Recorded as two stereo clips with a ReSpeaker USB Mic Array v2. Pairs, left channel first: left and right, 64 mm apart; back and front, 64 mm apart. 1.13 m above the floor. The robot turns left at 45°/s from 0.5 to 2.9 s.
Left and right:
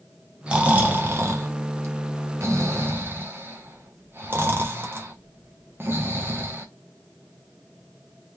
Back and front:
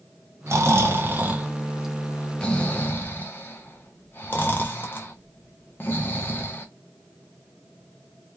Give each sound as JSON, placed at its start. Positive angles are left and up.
{"t": 0.5, "sound": "snoring", "azimuth_deg": -25, "distance_m": 0.8}